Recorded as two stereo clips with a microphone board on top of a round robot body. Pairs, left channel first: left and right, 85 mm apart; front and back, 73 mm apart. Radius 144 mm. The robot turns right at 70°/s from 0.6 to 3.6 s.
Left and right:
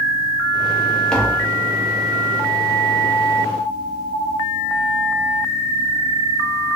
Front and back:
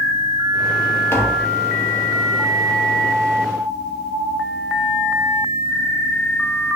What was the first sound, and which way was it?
Tapping, 15° left.